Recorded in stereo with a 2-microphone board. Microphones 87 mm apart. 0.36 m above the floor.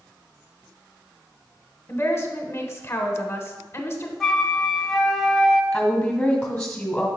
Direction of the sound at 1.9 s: 30° left (ahead or behind).